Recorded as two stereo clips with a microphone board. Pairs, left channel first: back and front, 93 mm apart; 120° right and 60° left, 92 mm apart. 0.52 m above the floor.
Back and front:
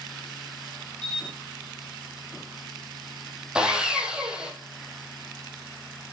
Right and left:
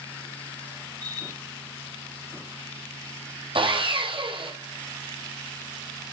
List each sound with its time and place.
1.0 s a camera shutter: 105° left, 8 m
3.5 s sawing: 80° left, 5 m